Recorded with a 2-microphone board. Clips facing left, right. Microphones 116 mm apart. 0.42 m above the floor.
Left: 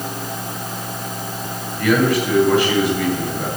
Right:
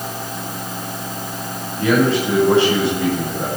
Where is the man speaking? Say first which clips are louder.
Right 1 dB; 30° right (ahead or behind), 8 m.